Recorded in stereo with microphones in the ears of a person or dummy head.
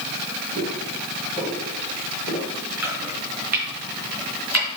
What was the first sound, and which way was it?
Footsteps, 20° right (ahead or behind).